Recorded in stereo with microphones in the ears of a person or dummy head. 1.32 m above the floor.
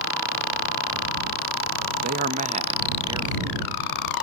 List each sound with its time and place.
2.0 s a man speaking: 50° right (ahead or behind); by 4.2 s centre (ahead or behind)